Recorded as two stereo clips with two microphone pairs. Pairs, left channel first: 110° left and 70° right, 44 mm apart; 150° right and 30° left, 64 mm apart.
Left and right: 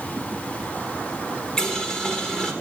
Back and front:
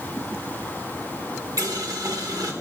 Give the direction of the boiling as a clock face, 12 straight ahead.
11 o'clock.